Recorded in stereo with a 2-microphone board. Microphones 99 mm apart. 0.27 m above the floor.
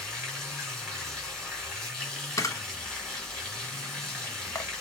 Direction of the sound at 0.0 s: 5° left (ahead or behind).